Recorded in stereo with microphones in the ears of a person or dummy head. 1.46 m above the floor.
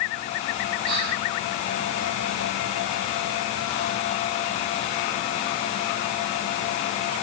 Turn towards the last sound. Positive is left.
turn(degrees=-80)